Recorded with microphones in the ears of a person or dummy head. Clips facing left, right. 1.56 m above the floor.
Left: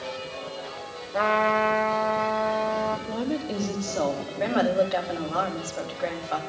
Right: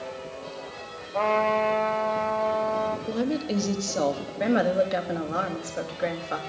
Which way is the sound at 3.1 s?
35° right (ahead or behind).